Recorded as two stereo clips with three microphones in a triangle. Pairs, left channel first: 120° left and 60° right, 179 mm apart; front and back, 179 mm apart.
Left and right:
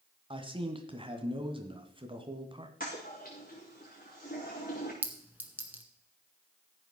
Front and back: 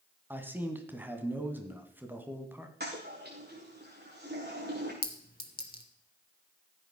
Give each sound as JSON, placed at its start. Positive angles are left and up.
{"t": 0.3, "sound": "a man speaking", "azimuth_deg": -105, "distance_m": 1.9}
{"t": 2.8, "sound": "a toilet flushing", "azimuth_deg": 155, "distance_m": 5.0}
{"t": 5.0, "sound": "a clink", "azimuth_deg": 20, "distance_m": 1.7}